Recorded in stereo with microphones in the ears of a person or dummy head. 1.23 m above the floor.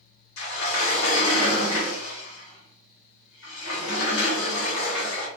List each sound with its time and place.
0.4 s a sliding door: 70° left (ahead or behind), 1.5 m